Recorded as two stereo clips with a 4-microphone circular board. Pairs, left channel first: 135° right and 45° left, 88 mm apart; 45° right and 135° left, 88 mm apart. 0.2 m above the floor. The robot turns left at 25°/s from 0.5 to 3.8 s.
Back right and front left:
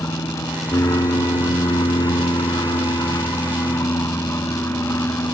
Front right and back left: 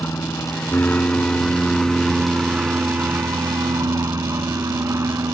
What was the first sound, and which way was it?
An aircraft, 100° right.